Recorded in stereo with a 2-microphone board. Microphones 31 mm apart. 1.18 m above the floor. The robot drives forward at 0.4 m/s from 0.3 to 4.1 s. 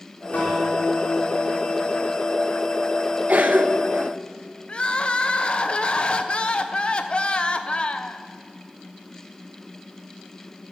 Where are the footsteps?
I don't hear footsteps.